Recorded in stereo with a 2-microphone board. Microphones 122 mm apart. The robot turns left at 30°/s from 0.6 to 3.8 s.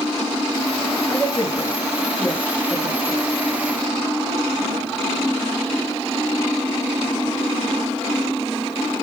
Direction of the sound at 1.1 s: 40° left (ahead or behind).